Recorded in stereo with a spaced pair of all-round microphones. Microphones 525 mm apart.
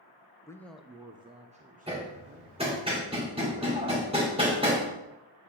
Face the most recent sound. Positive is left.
turn(degrees=-10)  # may be behind; listen again after turning